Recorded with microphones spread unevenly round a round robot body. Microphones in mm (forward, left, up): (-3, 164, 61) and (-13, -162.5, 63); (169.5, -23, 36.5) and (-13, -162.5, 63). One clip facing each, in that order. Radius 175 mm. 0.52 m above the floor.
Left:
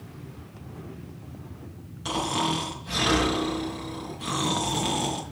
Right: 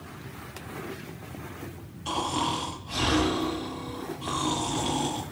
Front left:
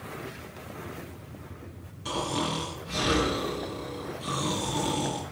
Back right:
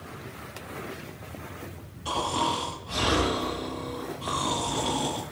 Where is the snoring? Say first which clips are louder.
Left 2 dB, even; 80° left, 5 m.